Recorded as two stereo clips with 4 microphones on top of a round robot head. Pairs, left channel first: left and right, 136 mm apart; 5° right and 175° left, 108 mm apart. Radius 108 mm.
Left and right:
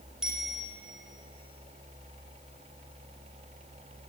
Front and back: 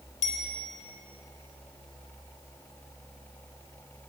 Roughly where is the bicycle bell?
Ahead.